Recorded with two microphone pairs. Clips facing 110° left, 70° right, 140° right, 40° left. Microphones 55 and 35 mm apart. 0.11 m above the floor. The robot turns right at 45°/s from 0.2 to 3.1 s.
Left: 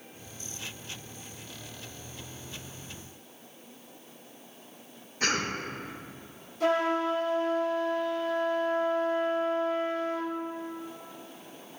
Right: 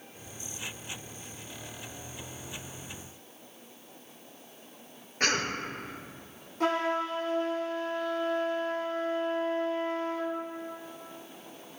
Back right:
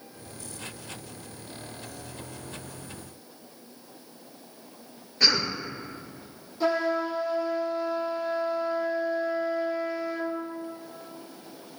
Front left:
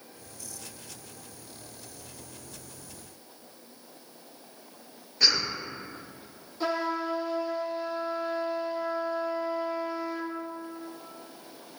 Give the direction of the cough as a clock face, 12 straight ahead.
2 o'clock.